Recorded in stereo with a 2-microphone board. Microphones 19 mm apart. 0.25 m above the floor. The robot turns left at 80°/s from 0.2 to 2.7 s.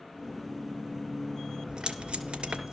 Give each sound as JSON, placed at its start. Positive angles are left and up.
{"t": 1.7, "sound": "tape being pulled", "side_deg": -40, "distance_m": 2.5}